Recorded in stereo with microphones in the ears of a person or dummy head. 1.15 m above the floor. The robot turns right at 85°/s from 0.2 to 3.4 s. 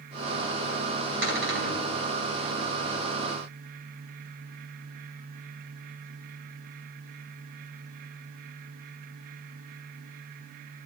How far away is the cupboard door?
About 2.5 m.